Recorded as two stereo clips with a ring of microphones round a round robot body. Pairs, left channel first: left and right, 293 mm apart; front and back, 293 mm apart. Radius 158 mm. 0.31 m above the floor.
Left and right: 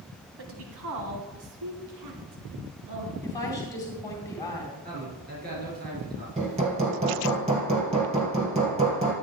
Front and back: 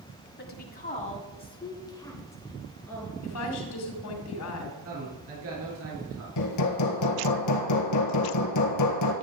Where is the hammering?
20° right, 1.7 m.